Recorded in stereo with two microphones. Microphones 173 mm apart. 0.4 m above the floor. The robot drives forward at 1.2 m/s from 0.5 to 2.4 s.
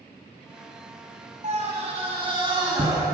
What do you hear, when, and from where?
1.4 s a scream: 40° right (ahead or behind), 2.5 m; by 3.0 s 30° right (ahead or behind), 3 m